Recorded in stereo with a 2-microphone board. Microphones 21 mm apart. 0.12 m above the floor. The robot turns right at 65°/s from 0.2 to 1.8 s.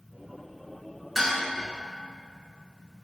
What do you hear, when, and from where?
1.1 s dishes clattering: centre (ahead or behind), 0.8 m; by 1.4 s 5° right (ahead or behind), 0.8 m